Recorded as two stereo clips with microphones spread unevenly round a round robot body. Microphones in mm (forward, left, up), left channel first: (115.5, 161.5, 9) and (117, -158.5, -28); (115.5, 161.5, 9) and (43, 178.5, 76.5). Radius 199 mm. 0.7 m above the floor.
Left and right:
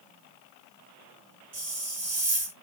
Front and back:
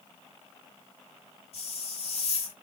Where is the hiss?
45° right, 1.5 m.